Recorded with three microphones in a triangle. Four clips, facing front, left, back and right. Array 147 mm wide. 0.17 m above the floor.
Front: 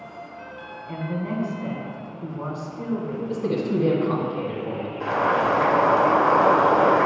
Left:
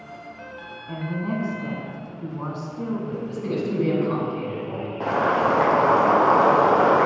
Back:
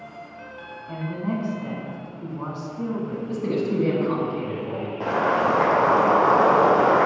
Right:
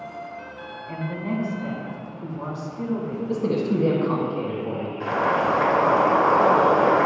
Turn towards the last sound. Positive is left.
turn(degrees=125)